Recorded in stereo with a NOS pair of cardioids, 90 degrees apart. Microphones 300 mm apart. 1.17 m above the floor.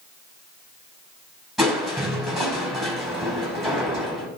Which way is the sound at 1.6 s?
Straight ahead.